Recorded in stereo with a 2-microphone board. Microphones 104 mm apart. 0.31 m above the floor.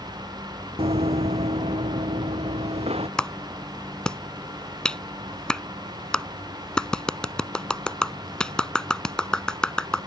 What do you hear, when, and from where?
0.8 s running footsteps: 75° right (ahead or behind)
3.2 s a clap: 10° left (ahead or behind)